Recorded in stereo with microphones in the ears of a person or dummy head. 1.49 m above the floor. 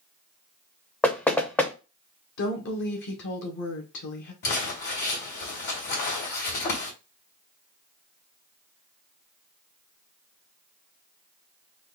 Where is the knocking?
5° left (ahead or behind), 0.6 m.